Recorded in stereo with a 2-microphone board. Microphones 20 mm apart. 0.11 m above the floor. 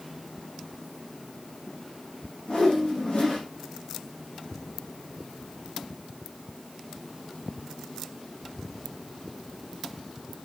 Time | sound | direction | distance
2.5 | a whoosh | 75° left (ahead or behind) | 8.5 m